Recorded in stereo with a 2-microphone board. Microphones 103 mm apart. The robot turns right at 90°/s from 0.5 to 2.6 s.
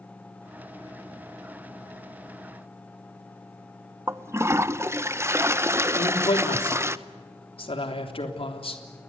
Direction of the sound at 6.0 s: 55° left (ahead or behind).